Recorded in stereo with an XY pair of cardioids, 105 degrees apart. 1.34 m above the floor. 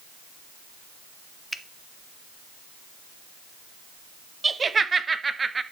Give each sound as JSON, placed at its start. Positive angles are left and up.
{"t": 1.5, "sound": "a finger snap", "azimuth_deg": -10, "distance_m": 0.8}
{"t": 4.4, "sound": "laughter", "azimuth_deg": -30, "distance_m": 0.9}